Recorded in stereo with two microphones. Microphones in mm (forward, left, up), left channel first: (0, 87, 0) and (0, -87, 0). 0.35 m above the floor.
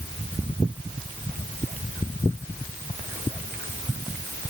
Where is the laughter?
No laughter in this recording.